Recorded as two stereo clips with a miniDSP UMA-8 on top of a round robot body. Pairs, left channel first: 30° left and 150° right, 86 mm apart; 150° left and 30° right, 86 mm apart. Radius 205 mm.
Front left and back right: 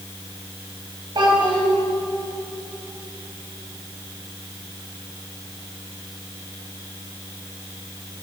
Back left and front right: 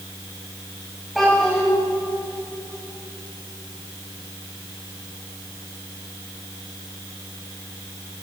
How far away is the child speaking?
About 2.5 m.